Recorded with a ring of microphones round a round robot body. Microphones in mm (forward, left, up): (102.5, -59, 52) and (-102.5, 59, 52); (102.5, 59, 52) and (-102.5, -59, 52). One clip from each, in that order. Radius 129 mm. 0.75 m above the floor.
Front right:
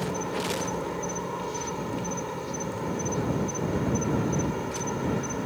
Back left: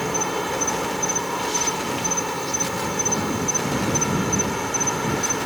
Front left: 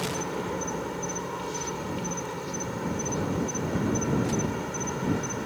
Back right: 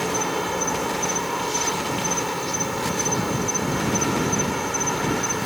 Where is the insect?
165° left.